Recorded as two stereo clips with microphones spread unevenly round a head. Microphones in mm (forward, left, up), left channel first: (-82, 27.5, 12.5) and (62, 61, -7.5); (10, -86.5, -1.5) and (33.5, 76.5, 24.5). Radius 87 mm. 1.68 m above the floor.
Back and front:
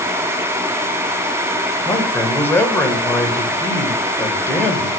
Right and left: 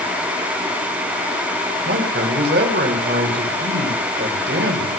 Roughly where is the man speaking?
Behind left.